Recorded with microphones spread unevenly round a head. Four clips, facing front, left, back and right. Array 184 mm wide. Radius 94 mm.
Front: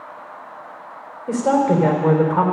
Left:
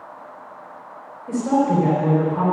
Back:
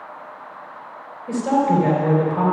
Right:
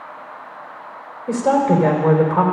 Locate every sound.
1.3 s a woman speaking: 40° right, 3 m